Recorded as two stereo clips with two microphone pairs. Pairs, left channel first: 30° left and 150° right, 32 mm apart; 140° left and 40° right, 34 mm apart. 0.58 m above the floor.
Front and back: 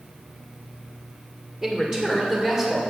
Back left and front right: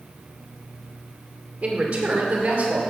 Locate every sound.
1.6 s a man speaking: 75° right, 2 m; by 2.8 s 60° right, 2.5 m